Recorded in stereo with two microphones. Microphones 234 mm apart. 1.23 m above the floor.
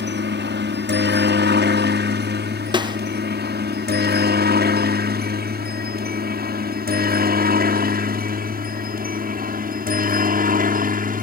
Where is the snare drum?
20° right (ahead or behind).